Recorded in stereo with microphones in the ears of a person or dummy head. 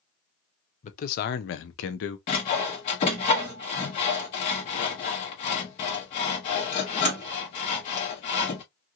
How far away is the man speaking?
About 0.7 m.